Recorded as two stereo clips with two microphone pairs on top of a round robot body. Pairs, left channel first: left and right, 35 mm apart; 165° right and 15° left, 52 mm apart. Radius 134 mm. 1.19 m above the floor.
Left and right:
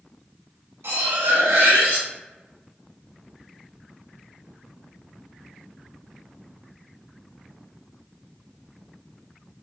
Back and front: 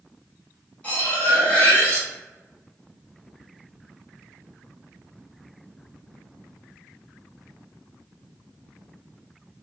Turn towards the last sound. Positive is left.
turn(degrees=-100)